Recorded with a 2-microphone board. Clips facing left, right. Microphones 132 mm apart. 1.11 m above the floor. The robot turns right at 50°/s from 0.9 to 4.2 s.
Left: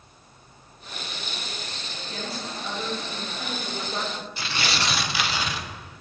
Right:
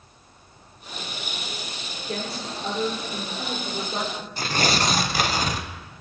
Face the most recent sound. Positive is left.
turn(degrees=-45)  # may be behind; listen again after turning